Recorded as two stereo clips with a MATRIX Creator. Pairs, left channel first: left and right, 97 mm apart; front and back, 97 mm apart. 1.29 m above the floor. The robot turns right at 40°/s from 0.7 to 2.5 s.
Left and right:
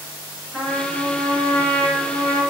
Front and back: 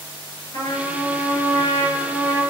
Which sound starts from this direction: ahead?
A trumpet, at 0.5 s.